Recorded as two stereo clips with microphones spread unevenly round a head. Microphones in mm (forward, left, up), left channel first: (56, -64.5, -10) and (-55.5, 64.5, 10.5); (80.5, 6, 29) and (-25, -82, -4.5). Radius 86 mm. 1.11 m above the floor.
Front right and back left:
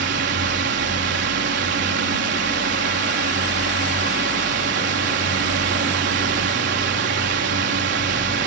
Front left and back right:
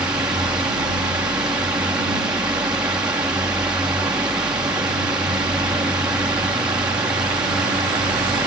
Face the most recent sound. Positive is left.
turn(degrees=145)